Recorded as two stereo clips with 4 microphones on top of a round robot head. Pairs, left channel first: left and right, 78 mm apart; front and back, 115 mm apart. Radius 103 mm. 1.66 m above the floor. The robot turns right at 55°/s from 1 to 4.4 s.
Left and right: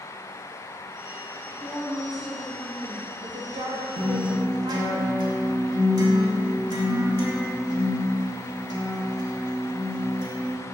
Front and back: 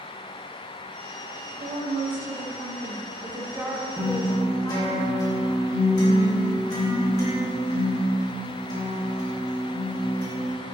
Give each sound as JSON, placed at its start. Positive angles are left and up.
{"t": 1.6, "sound": "a woman speaking", "azimuth_deg": 145, "distance_m": 1.2}
{"t": 4.0, "sound": "a guitar", "azimuth_deg": -85, "distance_m": 1.8}